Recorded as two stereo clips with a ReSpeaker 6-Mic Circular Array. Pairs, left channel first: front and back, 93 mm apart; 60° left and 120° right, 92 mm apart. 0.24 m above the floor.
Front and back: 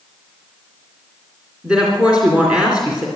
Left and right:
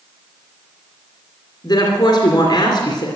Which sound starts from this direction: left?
A woman speaking, at 1.6 s.